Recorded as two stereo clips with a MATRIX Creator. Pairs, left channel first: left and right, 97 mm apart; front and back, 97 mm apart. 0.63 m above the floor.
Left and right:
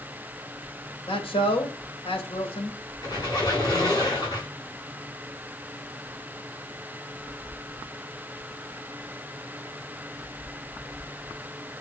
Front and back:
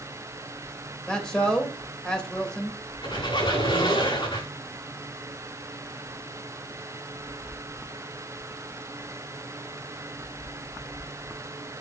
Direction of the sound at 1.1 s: 85° left.